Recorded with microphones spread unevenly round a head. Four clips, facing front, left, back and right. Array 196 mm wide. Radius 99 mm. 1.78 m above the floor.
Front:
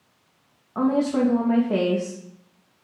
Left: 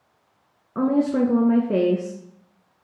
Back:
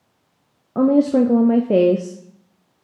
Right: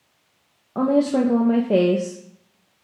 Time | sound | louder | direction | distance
0.8 | a woman speaking | right 1 dB, back 6 dB | 175° right | 0.7 m